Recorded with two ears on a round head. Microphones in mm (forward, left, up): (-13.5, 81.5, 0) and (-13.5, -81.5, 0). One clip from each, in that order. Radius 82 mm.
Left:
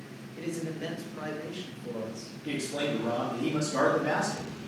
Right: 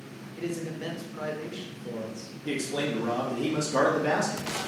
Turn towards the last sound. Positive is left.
turn(degrees=-40)  # may be behind; listen again after turning